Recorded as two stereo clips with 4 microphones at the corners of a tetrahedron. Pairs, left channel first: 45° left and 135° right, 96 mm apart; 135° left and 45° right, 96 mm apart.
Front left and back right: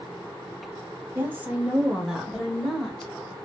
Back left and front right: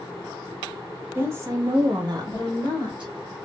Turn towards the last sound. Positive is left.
turn(degrees=-40)